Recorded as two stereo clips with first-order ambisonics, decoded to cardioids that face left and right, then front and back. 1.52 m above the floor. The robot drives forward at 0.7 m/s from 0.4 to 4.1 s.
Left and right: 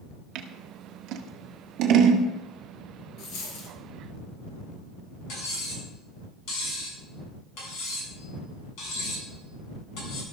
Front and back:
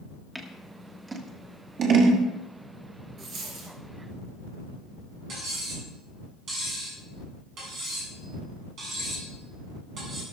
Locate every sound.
0.3 s scissors: 90° right, 1.5 m; by 2.3 s 135° right, 2.0 m
3.2 s a dropped coin: 125° left, 3.5 m; by 3.8 s 130° left, 3.5 m
5.3 s cutlery clinking: 125° left, 8 m